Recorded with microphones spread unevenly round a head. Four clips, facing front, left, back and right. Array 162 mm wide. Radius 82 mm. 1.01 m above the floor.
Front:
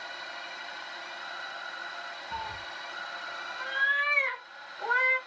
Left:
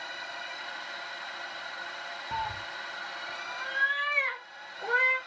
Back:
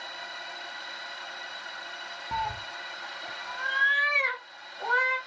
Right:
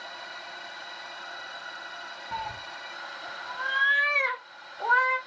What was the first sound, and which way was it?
A cat meowing, 165° left.